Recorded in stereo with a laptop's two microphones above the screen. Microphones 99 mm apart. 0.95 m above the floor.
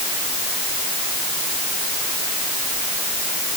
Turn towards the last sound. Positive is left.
No sound to turn to.